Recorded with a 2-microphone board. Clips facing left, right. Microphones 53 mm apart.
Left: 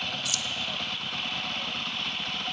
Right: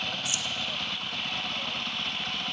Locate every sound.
0.2 s keys jangling: 30° right (ahead or behind), 1.3 m